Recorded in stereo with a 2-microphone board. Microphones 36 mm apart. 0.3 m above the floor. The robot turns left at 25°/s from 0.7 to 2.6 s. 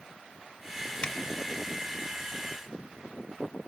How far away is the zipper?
About 0.8 m.